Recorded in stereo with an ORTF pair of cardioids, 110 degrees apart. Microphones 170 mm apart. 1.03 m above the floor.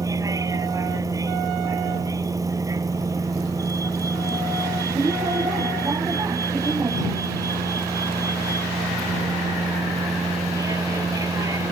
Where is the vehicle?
20° right.